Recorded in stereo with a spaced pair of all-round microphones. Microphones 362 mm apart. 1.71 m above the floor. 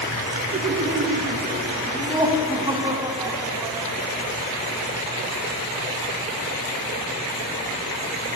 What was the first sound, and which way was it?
Laughter, 40° right (ahead or behind).